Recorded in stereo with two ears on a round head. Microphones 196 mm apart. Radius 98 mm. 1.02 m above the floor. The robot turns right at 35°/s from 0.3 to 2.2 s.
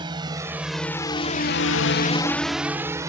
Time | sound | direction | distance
0.0 | a drone | 20° right (ahead or behind) | ?